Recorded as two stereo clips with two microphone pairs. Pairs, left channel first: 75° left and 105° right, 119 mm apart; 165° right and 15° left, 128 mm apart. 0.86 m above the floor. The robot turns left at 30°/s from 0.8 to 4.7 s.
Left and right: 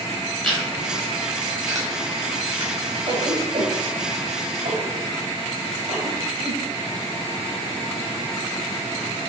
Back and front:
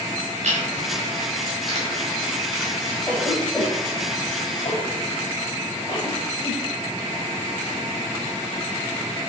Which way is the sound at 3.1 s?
80° right.